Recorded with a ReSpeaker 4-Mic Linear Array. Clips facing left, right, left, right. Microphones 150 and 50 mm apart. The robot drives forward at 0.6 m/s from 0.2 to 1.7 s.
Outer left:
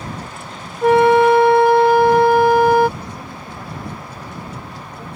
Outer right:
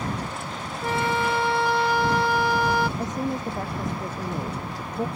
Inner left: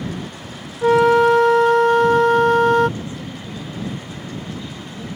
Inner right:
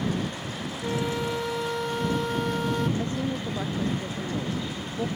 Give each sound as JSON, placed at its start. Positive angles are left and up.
{"t": 0.8, "sound": "a flute", "side_deg": 70}
{"t": 3.0, "sound": "a woman speaking", "side_deg": -45}